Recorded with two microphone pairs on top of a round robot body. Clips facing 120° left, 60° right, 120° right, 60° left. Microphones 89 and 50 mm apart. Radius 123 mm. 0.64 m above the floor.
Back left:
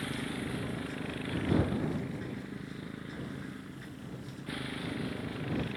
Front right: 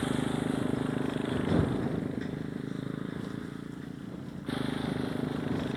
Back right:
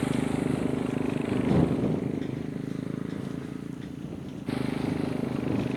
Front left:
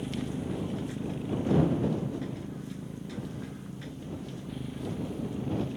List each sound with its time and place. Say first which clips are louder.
0.0 s a motorcycle: front right 7 dB, back right 7 dB; 120° right; by 5.8 s 125° right